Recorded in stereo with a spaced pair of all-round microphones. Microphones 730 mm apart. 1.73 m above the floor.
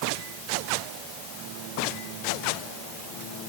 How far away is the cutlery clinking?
No cutlery clinking in this recording.